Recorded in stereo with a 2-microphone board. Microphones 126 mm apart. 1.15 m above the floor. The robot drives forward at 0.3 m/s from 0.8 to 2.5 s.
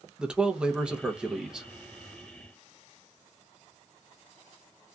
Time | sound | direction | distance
0.2 | a man speaking | 5° right (ahead or behind) | 0.6 m